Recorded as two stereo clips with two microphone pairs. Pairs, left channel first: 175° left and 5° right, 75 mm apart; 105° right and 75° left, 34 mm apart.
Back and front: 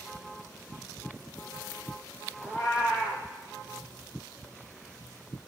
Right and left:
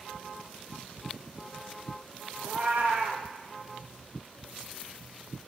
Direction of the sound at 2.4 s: 70° left.